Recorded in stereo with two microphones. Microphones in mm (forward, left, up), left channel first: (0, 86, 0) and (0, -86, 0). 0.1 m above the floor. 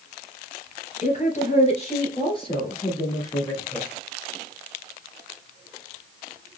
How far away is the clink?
I don't hear a clink.